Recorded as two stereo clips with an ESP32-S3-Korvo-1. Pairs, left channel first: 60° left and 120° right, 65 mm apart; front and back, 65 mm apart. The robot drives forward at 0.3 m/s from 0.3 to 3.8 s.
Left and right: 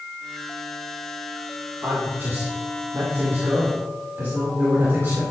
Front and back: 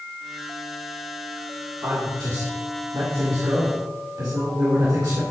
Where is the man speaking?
170° right, 1.8 m.